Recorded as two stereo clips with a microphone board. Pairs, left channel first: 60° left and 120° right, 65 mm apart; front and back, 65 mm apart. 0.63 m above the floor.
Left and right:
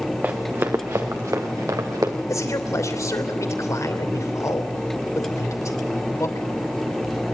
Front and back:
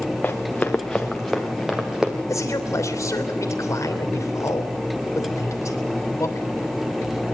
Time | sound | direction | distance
0.2 | running footsteps | 65° right | 2.5 m
2.3 | a man speaking | 30° left | 3 m